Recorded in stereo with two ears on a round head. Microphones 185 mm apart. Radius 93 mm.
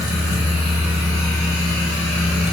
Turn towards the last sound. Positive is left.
No sound to turn to.